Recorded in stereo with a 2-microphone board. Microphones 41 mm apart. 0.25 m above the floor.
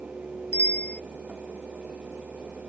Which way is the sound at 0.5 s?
45° left (ahead or behind).